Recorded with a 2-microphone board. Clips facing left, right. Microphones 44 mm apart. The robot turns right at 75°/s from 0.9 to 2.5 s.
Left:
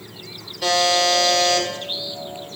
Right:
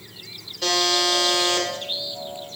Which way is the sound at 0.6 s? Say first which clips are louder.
Left 4 dB; 170° left.